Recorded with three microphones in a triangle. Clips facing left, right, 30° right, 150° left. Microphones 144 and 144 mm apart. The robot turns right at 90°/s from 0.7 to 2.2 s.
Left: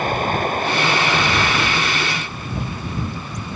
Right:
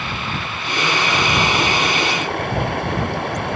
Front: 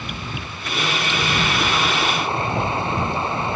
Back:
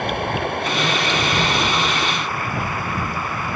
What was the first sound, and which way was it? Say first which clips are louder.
Running water: left 7 dB, back 10 dB; 130° left.